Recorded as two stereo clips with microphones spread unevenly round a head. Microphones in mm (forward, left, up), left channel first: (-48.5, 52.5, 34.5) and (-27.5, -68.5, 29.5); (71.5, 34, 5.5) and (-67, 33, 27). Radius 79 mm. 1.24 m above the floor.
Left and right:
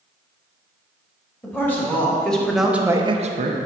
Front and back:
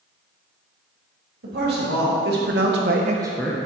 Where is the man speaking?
175° left, 3 m; by 3.6 s 70° right, 0.9 m.